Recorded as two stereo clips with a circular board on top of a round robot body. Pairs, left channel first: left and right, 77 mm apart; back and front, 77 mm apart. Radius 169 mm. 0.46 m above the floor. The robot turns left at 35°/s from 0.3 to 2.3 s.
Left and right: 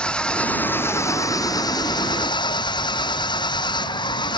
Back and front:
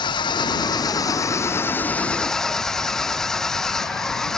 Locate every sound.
0.0 s an engine running: 165° left; by 4.4 s 95° left